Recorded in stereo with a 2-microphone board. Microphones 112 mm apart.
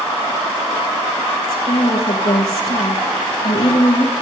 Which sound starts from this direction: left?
A woman speaking, at 1.5 s.